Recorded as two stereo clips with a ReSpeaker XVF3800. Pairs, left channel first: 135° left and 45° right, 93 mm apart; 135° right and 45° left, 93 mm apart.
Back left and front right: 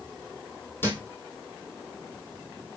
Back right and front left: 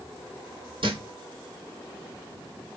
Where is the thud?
70° left, 1.1 m.